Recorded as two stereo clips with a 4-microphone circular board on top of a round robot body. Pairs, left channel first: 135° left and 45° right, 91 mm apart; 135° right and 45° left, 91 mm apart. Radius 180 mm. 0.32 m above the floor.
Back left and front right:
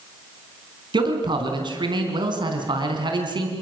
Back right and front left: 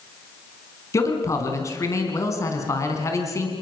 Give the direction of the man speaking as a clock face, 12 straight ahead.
3 o'clock.